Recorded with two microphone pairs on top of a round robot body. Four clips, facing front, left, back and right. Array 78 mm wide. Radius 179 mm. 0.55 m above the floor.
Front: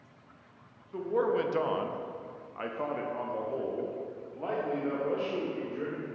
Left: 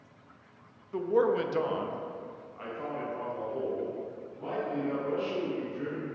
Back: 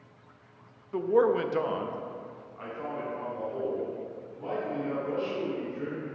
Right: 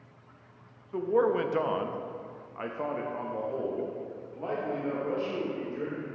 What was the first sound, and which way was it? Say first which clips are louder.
A man speaking: right 1 dB, back 5 dB; 170° left.